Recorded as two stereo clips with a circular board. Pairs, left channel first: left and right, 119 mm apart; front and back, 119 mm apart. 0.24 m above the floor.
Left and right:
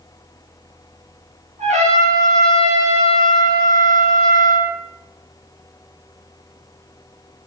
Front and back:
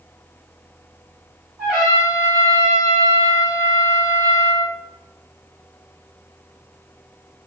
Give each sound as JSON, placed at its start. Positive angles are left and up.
{"t": 1.6, "sound": "a trumpet", "azimuth_deg": -95, "distance_m": 1.5}